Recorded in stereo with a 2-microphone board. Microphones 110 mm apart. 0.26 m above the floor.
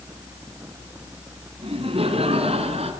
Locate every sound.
1.6 s laughter: 60° right (ahead or behind), 3 m; by 2.9 s 70° right (ahead or behind), 4.5 m